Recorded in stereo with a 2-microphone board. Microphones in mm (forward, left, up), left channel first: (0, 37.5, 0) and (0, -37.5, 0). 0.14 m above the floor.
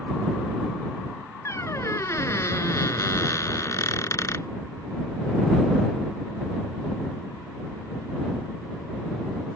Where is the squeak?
45° left (ahead or behind).